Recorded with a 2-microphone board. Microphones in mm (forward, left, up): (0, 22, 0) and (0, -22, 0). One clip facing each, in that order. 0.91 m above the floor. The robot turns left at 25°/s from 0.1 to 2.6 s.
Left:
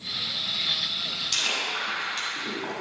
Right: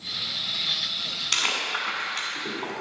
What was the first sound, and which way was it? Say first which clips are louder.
Chewing: right 2 dB; 70° right (ahead or behind).